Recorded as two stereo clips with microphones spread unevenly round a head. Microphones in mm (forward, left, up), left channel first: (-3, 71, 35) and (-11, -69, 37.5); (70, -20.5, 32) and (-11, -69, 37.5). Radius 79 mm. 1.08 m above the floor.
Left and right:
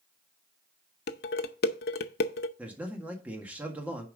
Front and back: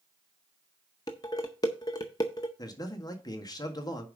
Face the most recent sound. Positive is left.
turn(degrees=-15)